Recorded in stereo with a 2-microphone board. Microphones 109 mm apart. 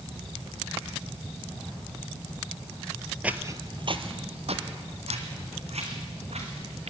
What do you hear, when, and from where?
3.2 s footsteps: 10° right (ahead or behind), 1.2 m; by 6.9 s 70° right (ahead or behind), 5.5 m